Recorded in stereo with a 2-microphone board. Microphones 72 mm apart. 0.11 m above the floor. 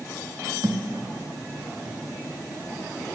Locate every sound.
0.6 s a thud: 70° right (ahead or behind), 1.8 m